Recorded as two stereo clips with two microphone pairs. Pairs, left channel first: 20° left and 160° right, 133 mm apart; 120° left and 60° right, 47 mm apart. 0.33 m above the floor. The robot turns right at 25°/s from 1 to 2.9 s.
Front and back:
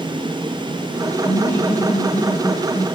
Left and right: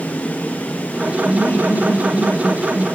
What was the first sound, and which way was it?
Laughter, 75° left.